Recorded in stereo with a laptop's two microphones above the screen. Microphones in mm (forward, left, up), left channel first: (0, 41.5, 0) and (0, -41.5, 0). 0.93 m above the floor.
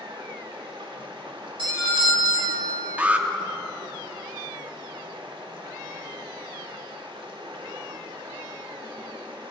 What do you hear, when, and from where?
0.0 s running water: 80° right, 1.4 m
1.6 s a doorbell: 70° right (ahead or behind), 2.5 m
3.0 s an alarm: 15° right (ahead or behind), 0.8 m